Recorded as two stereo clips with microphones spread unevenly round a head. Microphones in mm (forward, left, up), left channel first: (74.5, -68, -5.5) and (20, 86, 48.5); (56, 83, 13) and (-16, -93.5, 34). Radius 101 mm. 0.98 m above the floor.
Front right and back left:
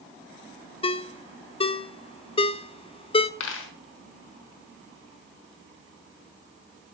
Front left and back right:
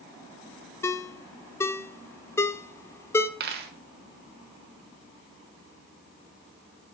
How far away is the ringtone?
About 0.6 m.